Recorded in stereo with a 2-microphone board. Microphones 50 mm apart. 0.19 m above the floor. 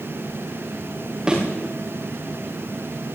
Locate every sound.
1.3 s a thud: 15° right (ahead or behind), 10 m